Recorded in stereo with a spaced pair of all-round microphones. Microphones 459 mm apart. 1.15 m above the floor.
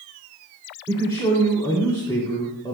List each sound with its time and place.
0.9 s a man speaking: 10° left (ahead or behind), 2.5 m